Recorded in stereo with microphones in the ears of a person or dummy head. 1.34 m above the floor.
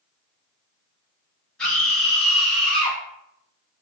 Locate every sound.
1.6 s a scream: 10° left (ahead or behind), 1.6 m; by 3.0 s 15° left (ahead or behind), 0.7 m